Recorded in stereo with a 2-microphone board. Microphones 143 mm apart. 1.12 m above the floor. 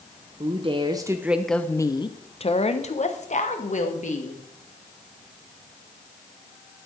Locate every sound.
0.4 s a woman speaking: 45° right (ahead or behind), 0.9 m; by 4.4 s 65° left (ahead or behind), 2 m